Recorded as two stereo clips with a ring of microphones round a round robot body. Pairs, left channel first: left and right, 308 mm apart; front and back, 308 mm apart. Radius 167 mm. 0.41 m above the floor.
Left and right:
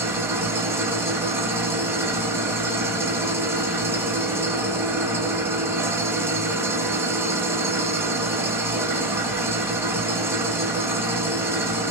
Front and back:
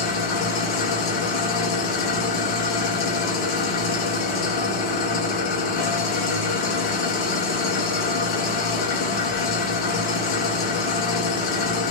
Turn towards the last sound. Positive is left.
turn(degrees=-5)